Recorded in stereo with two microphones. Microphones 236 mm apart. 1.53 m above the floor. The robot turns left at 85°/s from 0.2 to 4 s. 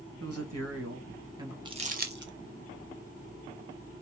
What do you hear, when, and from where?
0.2 s a woman speaking: 60° right, 2.0 m; by 1.6 s 175° right, 2.0 m
1.6 s crumpling: 20° right (ahead or behind), 1.2 m; by 2.3 s 50° right (ahead or behind), 1.2 m